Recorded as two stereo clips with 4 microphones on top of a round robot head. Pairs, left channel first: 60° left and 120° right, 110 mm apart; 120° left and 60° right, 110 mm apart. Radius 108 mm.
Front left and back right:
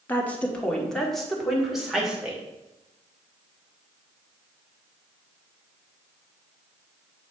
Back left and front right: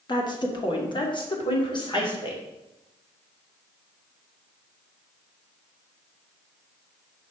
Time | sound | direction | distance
0.1 | a woman speaking | 120° left | 1.5 m